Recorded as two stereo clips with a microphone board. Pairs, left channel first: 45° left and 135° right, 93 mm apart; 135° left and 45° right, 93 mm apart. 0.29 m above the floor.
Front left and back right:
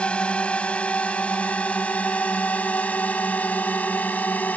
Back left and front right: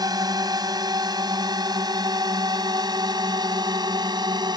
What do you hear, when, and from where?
0.0 s a drone: 30° right; by 4.6 s 25° right